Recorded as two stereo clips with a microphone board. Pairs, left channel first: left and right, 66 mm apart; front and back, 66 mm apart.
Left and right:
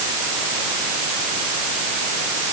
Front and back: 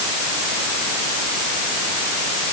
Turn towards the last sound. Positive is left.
No sound to turn to.